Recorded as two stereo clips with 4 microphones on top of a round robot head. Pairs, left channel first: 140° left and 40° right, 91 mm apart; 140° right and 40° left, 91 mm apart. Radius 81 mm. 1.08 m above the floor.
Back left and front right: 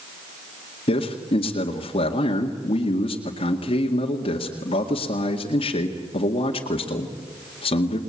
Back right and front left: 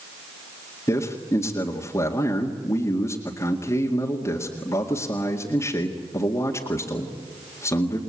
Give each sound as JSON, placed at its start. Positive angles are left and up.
{"t": 0.9, "sound": "a man speaking", "azimuth_deg": 160, "distance_m": 2.0}